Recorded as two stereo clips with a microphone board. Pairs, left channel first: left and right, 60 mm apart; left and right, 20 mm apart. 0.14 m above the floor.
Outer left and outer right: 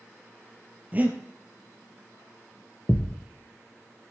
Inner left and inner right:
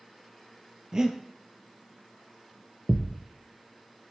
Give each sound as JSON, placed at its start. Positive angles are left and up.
{"t": 0.9, "sound": "breathing", "side_deg": -30, "distance_m": 1.8}
{"t": 2.9, "sound": "a thud", "side_deg": 55, "distance_m": 0.8}